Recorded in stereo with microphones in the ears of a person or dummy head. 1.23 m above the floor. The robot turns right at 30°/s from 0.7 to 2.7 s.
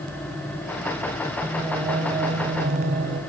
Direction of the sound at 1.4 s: 170° right.